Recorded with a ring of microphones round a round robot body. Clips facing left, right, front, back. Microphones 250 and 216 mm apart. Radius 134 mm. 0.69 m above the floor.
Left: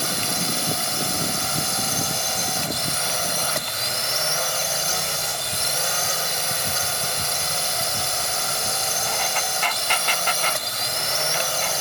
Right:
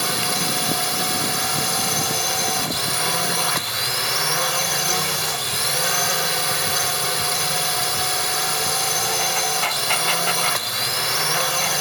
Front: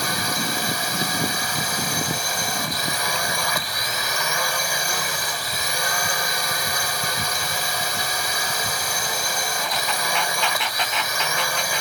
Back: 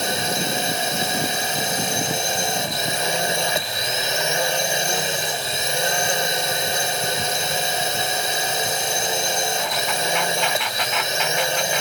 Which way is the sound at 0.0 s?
110° right.